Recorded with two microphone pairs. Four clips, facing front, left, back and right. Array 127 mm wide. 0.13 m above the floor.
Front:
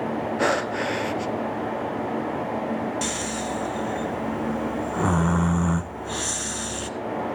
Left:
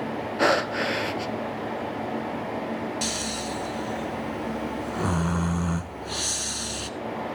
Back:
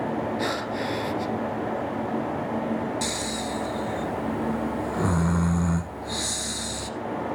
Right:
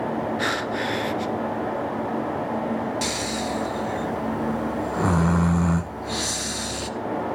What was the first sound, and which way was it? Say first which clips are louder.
Breathing: left 3 dB, front 4 dB; 65° left.